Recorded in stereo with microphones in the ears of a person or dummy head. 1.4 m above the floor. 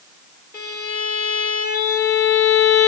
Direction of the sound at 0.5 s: 15° left (ahead or behind).